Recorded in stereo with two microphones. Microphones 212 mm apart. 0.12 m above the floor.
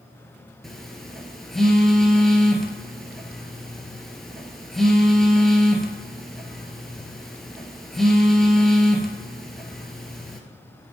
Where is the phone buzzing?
Centre (ahead or behind), 0.8 m.